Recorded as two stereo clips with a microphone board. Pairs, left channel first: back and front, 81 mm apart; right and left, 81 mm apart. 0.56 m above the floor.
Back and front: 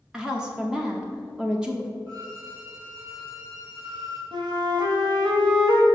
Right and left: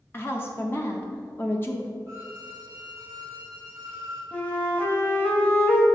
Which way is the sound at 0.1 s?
75° right.